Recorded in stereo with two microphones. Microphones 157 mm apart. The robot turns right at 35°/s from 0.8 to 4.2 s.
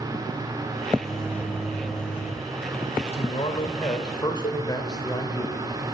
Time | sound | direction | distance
0.9 | a microwave | 35° right | 1.9 m
3.1 | a man speaking | 100° left | 1.4 m
4.4 | a cowbell | 55° left (ahead or behind) | 1.1 m